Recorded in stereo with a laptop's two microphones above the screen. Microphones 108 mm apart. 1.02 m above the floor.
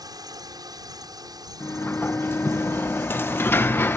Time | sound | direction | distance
0.0 | a drone | 35° right (ahead or behind) | ?
1.6 | a sliding door | 20° left (ahead or behind) | ?